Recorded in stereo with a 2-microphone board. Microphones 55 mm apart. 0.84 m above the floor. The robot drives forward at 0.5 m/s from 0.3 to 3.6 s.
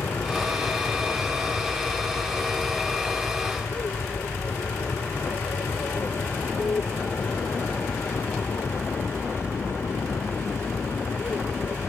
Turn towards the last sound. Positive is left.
turn(degrees=55)  # may be behind; listen again after turning